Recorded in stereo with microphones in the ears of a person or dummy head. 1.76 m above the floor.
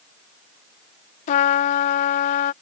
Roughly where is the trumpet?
Left.